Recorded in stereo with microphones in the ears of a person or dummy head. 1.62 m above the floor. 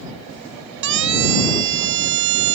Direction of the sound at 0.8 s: 70° right (ahead or behind).